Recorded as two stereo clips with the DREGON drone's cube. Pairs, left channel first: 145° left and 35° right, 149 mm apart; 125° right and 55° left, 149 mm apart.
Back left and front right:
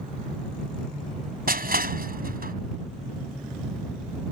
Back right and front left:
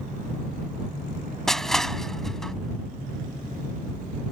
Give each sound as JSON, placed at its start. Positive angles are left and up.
{"t": 1.5, "sound": "crushing", "azimuth_deg": -35}